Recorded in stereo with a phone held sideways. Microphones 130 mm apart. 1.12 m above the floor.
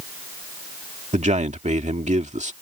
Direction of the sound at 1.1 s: 65° right (ahead or behind).